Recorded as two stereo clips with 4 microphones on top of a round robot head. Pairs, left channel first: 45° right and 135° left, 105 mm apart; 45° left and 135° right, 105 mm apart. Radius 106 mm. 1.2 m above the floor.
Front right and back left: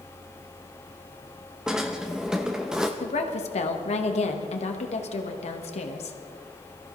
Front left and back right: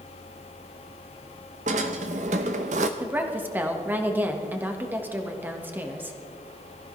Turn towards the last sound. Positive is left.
turn(degrees=-65)